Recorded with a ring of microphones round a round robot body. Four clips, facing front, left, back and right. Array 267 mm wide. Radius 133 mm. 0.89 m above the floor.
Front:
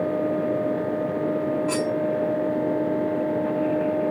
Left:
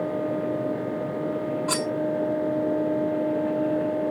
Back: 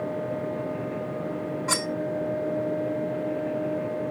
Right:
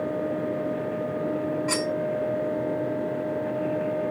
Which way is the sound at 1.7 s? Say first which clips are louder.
Even, front 5 dB; 160° left.